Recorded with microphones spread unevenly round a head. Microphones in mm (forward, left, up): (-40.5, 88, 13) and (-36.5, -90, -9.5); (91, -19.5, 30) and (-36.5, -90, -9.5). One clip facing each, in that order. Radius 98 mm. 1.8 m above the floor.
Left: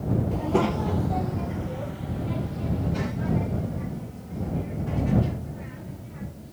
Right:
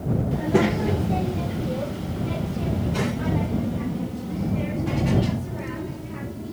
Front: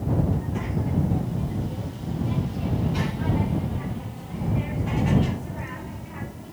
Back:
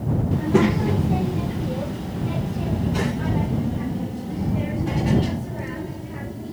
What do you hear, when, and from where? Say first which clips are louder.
0.3 s a child speaking: right 5 dB, back 10 dB; 175° right; by 6.5 s 95° right